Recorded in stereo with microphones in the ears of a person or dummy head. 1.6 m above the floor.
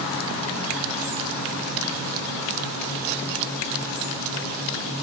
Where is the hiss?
I don't hear a hiss.